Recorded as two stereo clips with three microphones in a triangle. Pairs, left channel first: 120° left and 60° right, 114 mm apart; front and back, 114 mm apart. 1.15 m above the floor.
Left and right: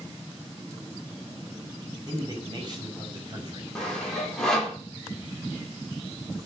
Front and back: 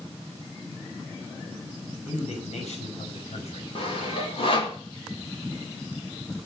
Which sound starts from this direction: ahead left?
Sawing, at 3.8 s.